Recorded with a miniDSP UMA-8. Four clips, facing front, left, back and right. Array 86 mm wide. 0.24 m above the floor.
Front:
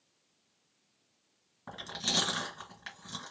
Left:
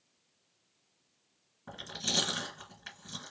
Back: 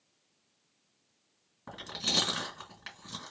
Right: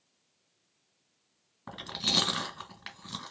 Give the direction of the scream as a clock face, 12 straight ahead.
No scream in this recording.